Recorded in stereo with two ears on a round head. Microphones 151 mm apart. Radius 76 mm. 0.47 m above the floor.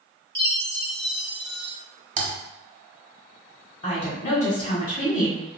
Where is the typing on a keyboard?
45° right (ahead or behind), 1.0 m.